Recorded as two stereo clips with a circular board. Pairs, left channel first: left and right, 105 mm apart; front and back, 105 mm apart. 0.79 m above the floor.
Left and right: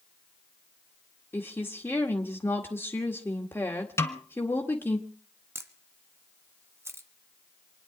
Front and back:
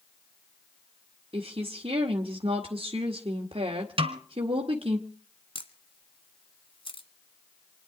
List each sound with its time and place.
1.3 s a woman speaking: 155° left, 1.8 m
4.0 s a snare drum: 150° left, 1.8 m
5.5 s a camera shutter: 25° right, 1.5 m